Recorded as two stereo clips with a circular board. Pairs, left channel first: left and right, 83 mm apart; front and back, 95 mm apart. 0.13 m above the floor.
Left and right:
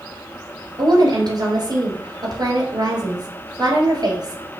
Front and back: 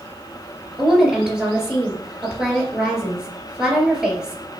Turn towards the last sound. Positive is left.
turn(degrees=-95)